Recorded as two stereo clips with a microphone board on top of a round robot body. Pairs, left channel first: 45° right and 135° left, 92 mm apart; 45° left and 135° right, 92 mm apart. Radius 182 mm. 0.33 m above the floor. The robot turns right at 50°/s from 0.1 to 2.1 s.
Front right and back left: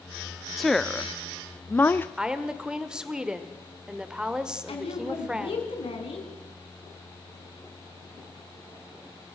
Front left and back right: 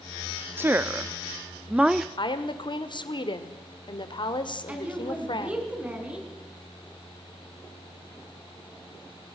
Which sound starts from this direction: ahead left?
A woman speaking, at 2.2 s.